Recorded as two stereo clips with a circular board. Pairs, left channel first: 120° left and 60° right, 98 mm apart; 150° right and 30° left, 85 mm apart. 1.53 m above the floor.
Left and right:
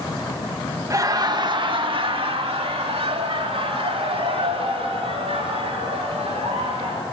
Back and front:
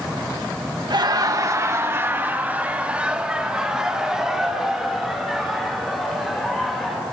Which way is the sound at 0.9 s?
5° right.